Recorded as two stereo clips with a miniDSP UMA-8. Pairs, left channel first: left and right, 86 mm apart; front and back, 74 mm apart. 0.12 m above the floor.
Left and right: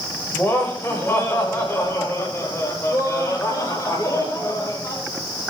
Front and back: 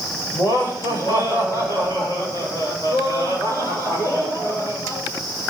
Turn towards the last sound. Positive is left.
turn(degrees=40)